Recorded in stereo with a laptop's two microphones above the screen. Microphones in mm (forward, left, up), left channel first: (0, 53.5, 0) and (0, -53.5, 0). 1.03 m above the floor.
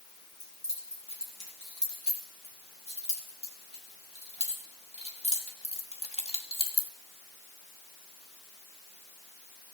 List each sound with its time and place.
0.4 s keys jangling: 75° left (ahead or behind), 6.5 m; by 6.9 s 50° left (ahead or behind), 1.6 m